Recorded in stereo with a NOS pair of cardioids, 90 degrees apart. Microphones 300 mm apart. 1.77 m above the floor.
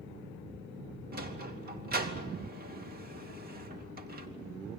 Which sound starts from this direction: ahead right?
A sliding door, at 1.1 s.